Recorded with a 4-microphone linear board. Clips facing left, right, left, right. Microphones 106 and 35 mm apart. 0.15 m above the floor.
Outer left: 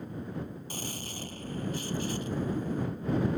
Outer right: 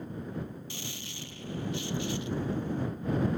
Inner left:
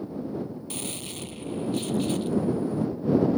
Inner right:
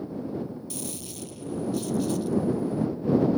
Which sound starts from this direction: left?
A gunshot, at 0.7 s.